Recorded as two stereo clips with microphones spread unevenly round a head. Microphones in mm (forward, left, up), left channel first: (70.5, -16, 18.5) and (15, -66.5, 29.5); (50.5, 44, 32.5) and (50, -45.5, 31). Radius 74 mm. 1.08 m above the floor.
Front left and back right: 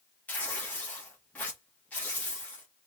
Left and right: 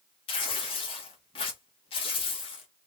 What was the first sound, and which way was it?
Tearing paper, 115° left.